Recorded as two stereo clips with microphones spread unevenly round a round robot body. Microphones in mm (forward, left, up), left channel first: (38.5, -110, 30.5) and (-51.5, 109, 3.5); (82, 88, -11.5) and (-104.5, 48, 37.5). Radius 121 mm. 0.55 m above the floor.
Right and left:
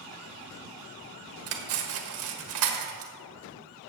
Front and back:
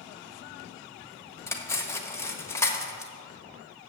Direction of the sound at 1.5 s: 85° left.